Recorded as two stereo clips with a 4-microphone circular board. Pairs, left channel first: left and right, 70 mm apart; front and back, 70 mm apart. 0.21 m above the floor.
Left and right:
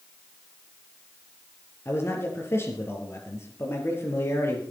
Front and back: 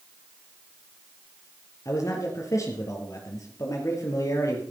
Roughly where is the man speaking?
Ahead left.